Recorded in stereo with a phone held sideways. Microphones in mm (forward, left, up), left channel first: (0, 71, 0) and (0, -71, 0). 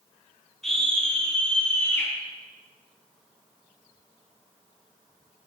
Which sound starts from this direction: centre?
A scream, at 0.6 s.